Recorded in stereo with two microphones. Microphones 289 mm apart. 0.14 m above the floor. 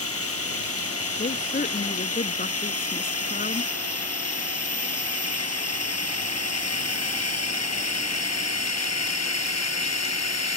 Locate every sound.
0.0 s a drone: 50° left (ahead or behind); by 10.6 s 60° left (ahead or behind)
1.2 s a woman speaking: 30° left (ahead or behind)